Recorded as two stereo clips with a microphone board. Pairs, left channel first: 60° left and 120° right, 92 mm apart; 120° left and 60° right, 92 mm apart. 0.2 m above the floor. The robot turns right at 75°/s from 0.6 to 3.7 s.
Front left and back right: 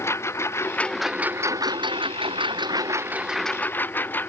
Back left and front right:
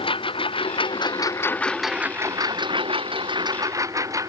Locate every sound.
0.0 s a lawn mower: 120° left; by 4.3 s 10° right